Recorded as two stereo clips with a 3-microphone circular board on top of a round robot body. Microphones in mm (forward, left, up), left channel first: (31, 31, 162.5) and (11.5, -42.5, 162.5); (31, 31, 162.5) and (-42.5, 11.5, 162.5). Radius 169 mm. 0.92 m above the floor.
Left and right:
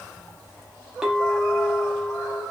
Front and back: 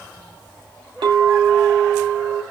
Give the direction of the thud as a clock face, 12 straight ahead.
No thud in this recording.